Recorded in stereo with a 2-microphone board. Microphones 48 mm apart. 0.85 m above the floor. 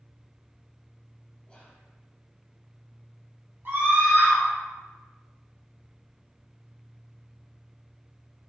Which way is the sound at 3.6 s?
50° right (ahead or behind).